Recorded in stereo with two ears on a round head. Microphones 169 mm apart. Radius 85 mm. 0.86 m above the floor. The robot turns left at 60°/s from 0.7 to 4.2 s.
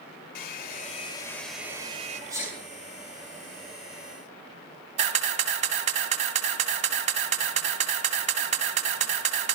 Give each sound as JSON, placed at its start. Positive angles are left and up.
{"t": 0.3, "sound": "a hair dryer", "azimuth_deg": 50, "distance_m": 1.7}
{"t": 2.3, "sound": "a sneeze", "side_deg": -20, "distance_m": 10.0}
{"t": 5.0, "sound": "a camera shutter", "side_deg": -40, "distance_m": 1.8}